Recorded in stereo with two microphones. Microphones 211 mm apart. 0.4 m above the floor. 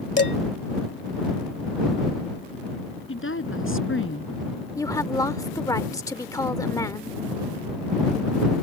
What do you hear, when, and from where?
0.2 s dishes clattering: 60° left (ahead or behind)
3.1 s a woman speaking: 75° left (ahead or behind)
4.8 s a woman speaking: 15° left (ahead or behind)